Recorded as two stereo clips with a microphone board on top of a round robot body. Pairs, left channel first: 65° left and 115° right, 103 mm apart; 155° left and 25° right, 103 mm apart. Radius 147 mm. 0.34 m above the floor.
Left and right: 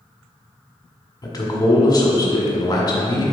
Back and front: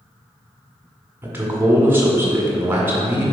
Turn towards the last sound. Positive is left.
turn(degrees=40)